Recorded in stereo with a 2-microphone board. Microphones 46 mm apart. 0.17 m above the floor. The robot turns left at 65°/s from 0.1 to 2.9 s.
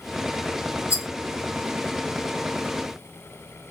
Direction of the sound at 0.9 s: 85° left.